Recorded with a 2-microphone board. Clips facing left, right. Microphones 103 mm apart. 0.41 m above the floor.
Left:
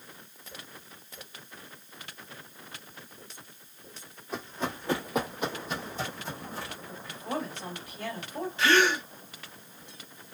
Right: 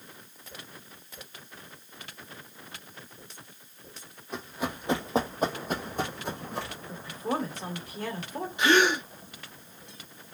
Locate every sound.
4.3 s running footsteps: centre (ahead or behind), 1.1 m; by 6.8 s 75° right (ahead or behind), 1.5 m
6.9 s a woman speaking: 40° right (ahead or behind), 1.9 m
8.6 s a gasp: 15° right (ahead or behind), 0.5 m